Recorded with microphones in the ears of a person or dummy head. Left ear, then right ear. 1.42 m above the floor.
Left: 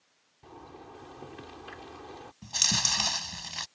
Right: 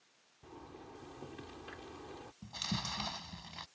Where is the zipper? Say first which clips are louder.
Left 5 dB; 20° left (ahead or behind).